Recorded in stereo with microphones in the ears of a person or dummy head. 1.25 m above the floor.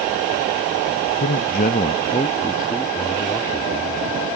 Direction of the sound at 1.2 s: 65° left (ahead or behind).